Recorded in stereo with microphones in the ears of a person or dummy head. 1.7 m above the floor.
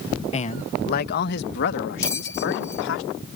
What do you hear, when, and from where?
0.3 s a man speaking: 35° left (ahead or behind); by 3.0 s 70° left (ahead or behind)
2.0 s a bell: 15° left (ahead or behind)